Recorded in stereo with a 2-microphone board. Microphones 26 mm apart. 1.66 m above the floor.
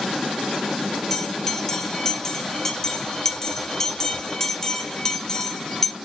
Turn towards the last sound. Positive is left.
turn(degrees=15)  # may be behind; listen again after turning